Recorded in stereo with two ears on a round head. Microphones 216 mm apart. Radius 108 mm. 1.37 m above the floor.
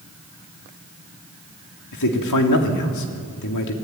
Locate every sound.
1.9 s a man speaking: 85° left, 3.5 m